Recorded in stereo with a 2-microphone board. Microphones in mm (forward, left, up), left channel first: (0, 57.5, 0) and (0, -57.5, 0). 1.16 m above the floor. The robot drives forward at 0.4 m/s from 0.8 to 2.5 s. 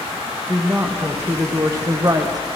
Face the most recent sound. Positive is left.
turn(degrees=-40)  # may be behind; listen again after turning